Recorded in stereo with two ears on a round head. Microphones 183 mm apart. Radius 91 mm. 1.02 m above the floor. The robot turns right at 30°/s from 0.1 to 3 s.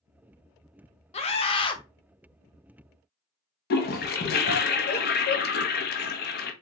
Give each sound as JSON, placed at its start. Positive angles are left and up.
{"t": 1.1, "sound": "a scream", "side_deg": 30, "distance_m": 0.6}
{"t": 3.7, "sound": "a toilet flushing", "side_deg": 50, "distance_m": 0.6}